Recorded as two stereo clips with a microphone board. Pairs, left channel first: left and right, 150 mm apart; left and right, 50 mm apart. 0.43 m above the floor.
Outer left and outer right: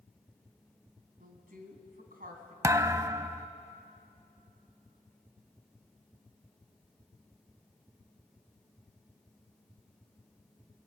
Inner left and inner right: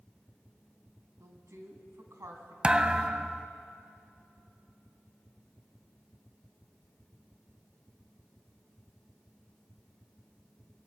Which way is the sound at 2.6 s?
20° right (ahead or behind).